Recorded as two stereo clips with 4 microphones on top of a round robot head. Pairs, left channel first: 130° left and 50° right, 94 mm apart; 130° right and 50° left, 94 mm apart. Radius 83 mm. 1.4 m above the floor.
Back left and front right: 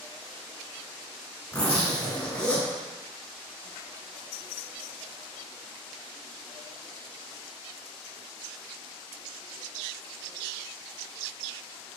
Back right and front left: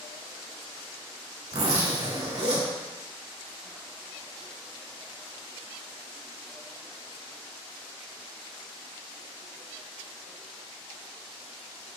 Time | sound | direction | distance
1.5 | a zipper | 55° left | 3.5 m